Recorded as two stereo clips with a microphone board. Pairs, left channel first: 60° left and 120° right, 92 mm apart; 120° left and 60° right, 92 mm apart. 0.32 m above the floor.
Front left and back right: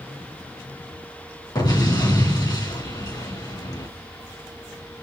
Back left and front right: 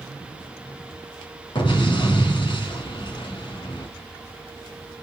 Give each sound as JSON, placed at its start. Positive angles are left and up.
{"t": 1.6, "sound": "an explosion", "azimuth_deg": 95, "distance_m": 3.0}